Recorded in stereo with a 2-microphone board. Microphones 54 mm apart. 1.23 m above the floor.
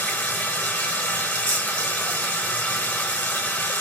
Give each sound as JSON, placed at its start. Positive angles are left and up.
{"t": 0.0, "sound": "running water", "side_deg": 30, "distance_m": 2.5}